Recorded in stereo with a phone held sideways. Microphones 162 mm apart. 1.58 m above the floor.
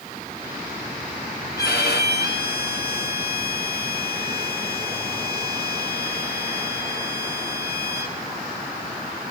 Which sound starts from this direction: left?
A violin, at 1.6 s.